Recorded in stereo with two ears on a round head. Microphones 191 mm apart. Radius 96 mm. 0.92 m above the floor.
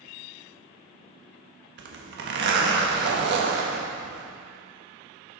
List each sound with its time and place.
1.8 s a zipper: 55° right (ahead or behind), 1.3 m